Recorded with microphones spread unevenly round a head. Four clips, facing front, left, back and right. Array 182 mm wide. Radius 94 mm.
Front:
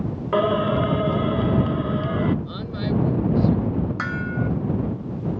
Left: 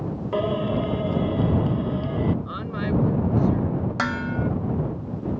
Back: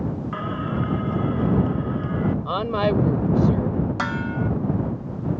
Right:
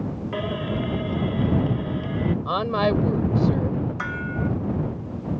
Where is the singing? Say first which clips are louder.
Left 5 dB, front 13 dB; 20° left.